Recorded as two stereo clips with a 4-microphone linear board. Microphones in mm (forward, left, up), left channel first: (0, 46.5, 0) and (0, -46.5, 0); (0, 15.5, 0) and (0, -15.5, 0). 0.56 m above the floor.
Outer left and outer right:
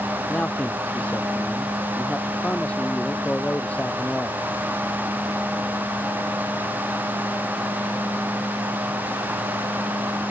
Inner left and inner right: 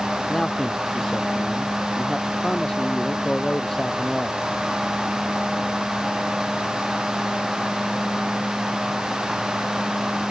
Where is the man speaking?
15° left (ahead or behind).